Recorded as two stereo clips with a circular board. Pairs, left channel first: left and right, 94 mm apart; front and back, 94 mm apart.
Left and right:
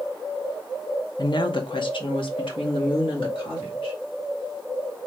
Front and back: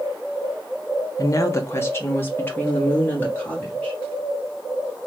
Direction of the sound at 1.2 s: 50° left.